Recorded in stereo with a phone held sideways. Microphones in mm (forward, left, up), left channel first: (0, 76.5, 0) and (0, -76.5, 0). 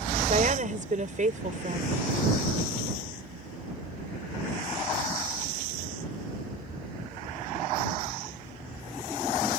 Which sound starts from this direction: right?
A woman speaking, at 0.3 s.